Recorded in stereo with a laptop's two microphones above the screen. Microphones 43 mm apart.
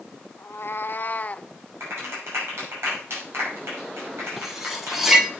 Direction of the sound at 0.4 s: 65° left (ahead or behind).